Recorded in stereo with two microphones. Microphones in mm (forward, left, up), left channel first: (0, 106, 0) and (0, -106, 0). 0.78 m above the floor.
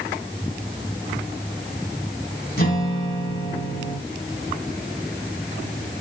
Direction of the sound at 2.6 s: 50° left (ahead or behind).